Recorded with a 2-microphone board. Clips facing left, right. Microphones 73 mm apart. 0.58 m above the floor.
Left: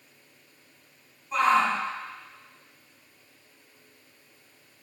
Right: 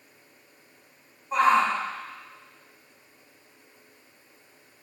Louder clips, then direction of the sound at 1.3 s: Right 1 dB; 35° right (ahead or behind).